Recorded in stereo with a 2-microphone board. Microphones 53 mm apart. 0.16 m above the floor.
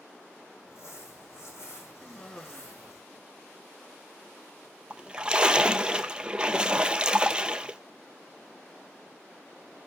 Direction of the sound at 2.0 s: 20° left (ahead or behind).